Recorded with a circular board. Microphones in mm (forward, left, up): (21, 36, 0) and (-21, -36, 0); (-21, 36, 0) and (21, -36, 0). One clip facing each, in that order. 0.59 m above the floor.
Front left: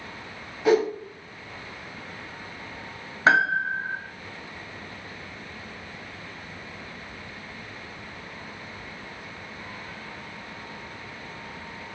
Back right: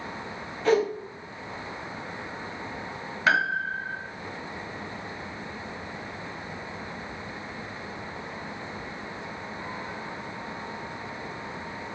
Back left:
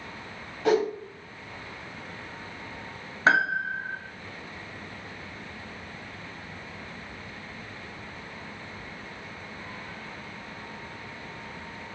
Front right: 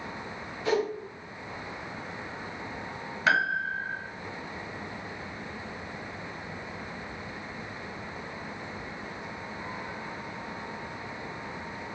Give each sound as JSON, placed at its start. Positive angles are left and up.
{"t": 0.7, "sound": "a whoosh", "azimuth_deg": 140, "distance_m": 1.4}
{"t": 3.3, "sound": "a piano", "azimuth_deg": 95, "distance_m": 0.6}